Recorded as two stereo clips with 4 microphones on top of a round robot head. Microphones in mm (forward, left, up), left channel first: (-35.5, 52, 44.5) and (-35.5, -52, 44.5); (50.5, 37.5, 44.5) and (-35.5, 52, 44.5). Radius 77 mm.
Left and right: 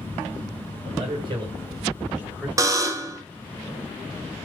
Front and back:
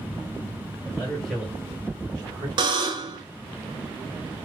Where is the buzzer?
150° right, 0.7 m.